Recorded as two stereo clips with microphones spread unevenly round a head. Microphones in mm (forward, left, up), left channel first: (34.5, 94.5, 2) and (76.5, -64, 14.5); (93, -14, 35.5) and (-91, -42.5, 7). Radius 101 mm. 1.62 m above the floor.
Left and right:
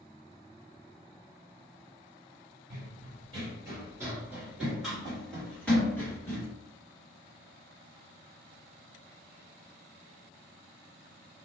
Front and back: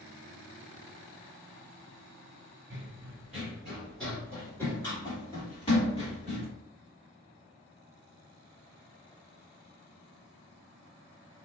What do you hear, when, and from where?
2.7 s running footsteps: 90° right, 1.8 m; by 6.5 s 35° left, 2 m